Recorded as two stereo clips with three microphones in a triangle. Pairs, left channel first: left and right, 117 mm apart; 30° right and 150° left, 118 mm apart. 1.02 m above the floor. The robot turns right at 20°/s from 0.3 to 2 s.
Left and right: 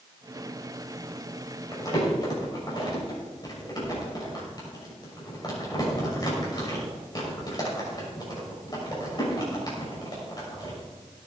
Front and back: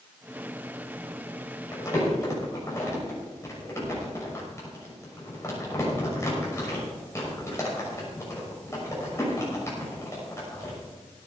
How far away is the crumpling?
About 6 m.